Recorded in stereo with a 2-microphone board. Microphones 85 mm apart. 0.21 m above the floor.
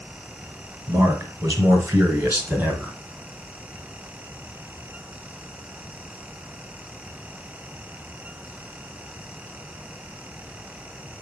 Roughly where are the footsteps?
I don't hear footsteps.